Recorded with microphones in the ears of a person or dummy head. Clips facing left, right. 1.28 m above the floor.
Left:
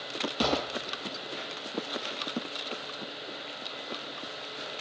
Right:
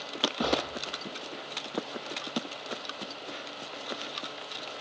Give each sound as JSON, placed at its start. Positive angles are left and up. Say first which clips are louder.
{"t": 0.4, "sound": "a gunshot", "louder": "left 1 dB", "side_deg": 35, "distance_m": 7.5}